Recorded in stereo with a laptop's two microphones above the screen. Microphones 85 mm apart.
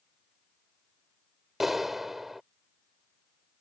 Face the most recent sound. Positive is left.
turn(degrees=0)  # may be behind; listen again after turning